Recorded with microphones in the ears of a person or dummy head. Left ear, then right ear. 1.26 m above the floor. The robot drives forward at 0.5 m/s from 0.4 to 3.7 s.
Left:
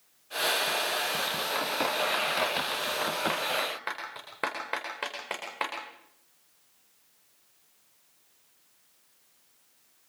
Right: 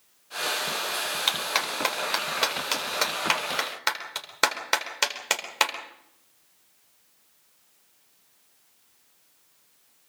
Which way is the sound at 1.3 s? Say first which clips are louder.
Right 4 dB; 65° right (ahead or behind).